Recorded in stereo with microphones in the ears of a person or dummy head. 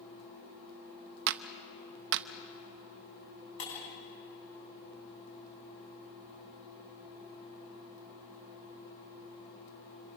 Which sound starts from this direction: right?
A clap, at 1.3 s.